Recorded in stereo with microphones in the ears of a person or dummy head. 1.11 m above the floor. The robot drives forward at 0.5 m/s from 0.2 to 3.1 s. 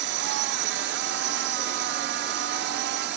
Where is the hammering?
No hammering in this recording.